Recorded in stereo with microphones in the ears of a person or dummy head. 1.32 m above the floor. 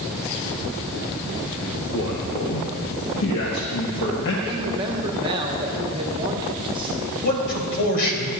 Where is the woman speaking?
25° right (ahead or behind), 1.4 m.